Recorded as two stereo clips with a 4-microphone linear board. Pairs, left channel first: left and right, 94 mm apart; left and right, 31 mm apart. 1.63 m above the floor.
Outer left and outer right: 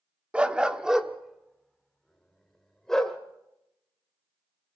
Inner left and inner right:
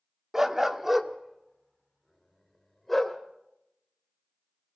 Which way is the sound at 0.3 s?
15° right (ahead or behind).